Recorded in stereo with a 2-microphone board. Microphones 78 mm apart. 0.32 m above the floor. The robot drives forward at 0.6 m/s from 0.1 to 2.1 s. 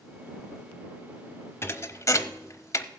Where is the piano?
I don't hear a piano.